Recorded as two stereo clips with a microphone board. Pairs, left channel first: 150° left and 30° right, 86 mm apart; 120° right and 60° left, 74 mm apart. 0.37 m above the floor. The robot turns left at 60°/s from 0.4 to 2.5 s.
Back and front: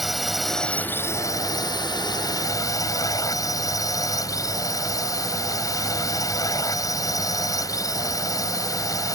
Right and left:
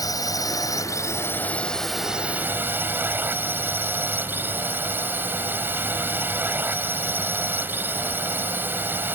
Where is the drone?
120° right; by 9.2 s 115° left.